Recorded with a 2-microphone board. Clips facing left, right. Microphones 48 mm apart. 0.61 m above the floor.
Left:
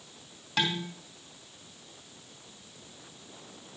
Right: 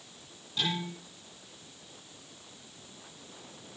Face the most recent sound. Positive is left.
turn(degrees=85)